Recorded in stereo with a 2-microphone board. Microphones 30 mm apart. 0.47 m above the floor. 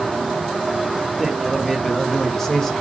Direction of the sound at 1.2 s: 5° left (ahead or behind).